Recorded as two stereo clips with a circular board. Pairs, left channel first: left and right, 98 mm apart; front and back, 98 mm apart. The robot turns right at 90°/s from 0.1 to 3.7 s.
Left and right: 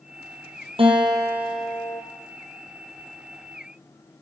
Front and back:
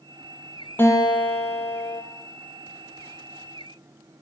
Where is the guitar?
70° right, 4 m; by 2.0 s 40° left, 4 m.